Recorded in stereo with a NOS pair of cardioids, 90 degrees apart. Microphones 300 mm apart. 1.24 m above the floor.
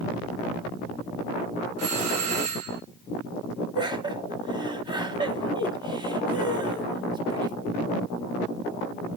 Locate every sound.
1.8 s a doorbell: 60° right, 2.5 m
3.8 s laughter: 15° right, 2.5 m